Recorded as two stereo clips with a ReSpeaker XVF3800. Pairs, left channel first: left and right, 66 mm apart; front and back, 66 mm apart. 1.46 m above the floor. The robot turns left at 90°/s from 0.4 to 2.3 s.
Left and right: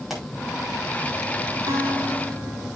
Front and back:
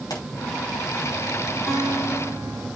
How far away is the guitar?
About 4 m.